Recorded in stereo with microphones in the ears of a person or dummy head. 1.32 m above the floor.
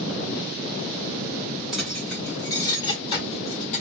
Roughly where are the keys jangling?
Centre.